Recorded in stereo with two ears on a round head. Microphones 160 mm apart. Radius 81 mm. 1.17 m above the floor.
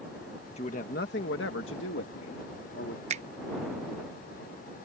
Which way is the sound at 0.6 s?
35° left (ahead or behind).